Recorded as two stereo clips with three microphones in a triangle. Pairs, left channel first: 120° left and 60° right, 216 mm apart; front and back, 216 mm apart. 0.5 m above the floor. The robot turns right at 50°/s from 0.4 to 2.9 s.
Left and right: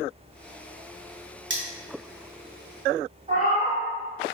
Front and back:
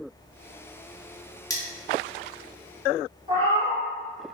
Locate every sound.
1.5 s cutlery clinking: 75° right, 0.7 m; by 1.6 s 70° right, 0.7 m
3.3 s a cat meowing: 115° right, 1.4 m